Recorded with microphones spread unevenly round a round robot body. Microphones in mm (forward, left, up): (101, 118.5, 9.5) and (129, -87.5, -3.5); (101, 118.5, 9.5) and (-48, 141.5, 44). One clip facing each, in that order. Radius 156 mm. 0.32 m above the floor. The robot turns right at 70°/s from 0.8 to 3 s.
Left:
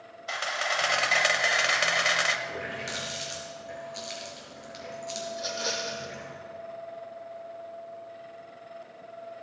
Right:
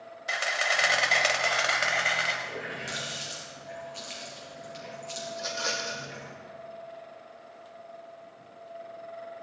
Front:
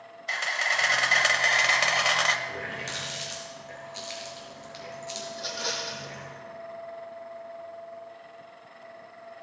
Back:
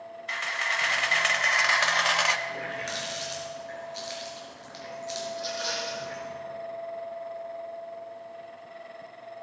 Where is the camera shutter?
20° right, 1.0 m; by 2.4 s 90° left, 1.0 m.